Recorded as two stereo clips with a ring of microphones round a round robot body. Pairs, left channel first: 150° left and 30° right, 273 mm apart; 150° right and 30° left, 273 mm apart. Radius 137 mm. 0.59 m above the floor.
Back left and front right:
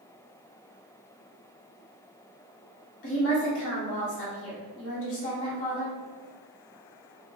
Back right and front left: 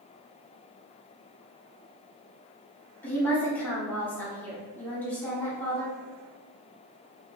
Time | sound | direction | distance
3.0 | a woman speaking | 130° left | 1.7 m